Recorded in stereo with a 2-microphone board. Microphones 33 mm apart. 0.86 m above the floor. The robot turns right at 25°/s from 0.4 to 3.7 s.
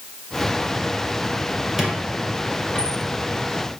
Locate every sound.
1.8 s a squeak: centre (ahead or behind), 1.5 m; by 3.0 s 30° left (ahead or behind), 1.5 m